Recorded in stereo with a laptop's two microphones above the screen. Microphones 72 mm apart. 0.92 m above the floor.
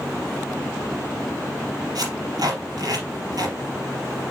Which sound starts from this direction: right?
Tape being pulled, at 1.9 s.